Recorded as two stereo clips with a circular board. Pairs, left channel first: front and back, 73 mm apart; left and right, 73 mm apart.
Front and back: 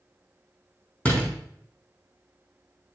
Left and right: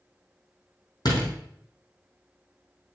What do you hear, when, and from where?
1.1 s a door slam: 70° left, 3.5 m